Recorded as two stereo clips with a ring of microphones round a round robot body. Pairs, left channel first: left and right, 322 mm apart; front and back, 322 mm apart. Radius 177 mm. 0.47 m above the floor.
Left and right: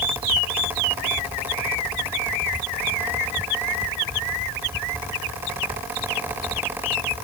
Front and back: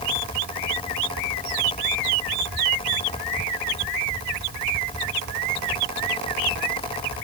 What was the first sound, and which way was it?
Only background noise.